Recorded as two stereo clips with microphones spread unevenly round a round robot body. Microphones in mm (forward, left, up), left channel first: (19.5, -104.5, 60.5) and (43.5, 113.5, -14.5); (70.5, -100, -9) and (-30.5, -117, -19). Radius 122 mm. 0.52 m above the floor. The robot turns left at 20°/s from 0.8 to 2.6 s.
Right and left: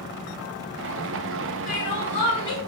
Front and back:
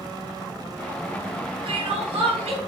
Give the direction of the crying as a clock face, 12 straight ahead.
5 o'clock.